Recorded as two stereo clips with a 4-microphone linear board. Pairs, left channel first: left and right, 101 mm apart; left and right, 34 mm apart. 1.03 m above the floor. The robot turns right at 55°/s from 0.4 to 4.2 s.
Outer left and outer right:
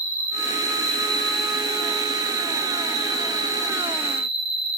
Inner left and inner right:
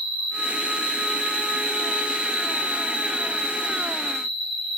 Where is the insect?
125° left, 1.2 m; by 4.8 s 25° right, 1.2 m.